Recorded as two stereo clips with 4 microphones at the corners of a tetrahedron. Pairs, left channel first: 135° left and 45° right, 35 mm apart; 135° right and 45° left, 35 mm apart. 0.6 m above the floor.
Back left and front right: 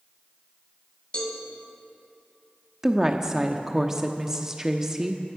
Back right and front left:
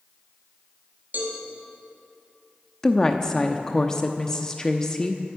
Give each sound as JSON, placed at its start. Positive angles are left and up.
{"t": 1.1, "sound": "a cowbell", "azimuth_deg": 80, "distance_m": 2.5}
{"t": 2.8, "sound": "a woman speaking", "azimuth_deg": -90, "distance_m": 0.7}